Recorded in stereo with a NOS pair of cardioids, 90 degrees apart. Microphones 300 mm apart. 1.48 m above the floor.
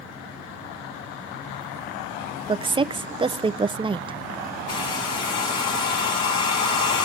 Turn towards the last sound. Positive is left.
turn(degrees=70)